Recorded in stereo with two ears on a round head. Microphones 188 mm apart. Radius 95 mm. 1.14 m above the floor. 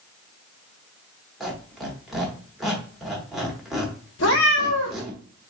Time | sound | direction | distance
1.4 | a squeak | centre (ahead or behind) | 1.0 m
4.2 | a cat meowing | 60° left (ahead or behind) | 1.1 m